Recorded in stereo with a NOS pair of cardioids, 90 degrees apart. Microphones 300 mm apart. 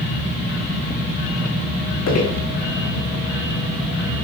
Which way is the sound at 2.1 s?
55° left.